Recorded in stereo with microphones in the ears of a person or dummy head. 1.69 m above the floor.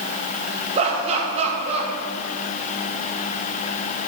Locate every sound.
0.8 s laughter: 35° right (ahead or behind), 1.4 m